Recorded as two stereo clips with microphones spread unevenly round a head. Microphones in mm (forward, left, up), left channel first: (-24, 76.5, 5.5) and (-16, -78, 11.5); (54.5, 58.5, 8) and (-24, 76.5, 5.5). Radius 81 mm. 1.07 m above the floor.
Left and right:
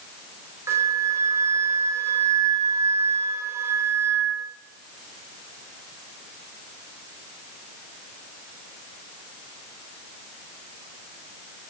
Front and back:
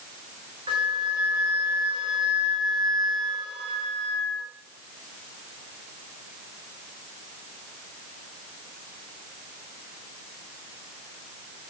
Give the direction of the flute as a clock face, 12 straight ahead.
5 o'clock.